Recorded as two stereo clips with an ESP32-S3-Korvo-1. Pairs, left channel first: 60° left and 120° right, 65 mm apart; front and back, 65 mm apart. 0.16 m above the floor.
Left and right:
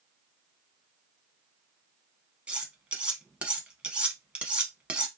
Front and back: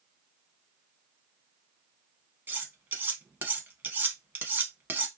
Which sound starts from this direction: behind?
Cutlery clinking, at 2.5 s.